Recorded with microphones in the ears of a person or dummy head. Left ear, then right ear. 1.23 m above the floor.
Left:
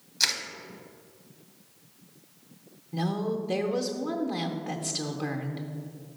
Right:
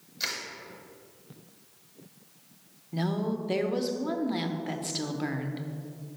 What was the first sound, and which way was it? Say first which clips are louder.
Crushing: left 7 dB; 20° left (ahead or behind).